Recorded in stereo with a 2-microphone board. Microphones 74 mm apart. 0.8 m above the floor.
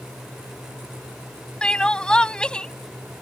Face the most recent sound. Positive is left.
turn(degrees=10)  # may be behind; listen again after turning